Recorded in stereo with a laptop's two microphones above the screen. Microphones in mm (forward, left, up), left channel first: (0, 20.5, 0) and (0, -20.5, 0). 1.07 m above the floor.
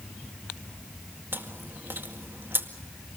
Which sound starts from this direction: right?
Chewing, at 1.3 s.